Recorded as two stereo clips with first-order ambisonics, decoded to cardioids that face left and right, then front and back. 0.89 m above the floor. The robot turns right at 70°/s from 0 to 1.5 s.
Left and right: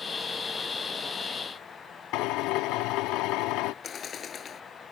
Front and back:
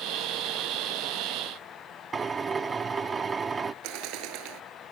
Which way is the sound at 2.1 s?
110° left.